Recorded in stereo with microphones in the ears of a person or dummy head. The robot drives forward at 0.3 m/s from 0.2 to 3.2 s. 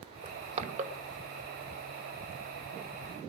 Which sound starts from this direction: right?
Crushing, at 0.2 s.